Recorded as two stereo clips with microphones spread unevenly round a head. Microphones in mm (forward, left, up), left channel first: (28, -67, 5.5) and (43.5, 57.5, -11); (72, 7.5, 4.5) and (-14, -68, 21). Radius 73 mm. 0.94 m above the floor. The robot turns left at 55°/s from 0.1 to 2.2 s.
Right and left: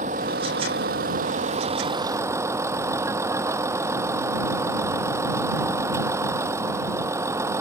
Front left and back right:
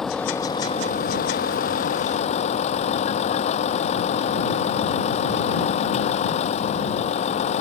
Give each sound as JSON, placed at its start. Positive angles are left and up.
{"t": 0.0, "sound": "a vehicle", "azimuth_deg": 130}